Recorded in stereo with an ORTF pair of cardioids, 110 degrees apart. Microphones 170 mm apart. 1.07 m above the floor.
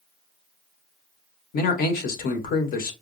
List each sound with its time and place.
1.5 s a man speaking: 60° left, 1.2 m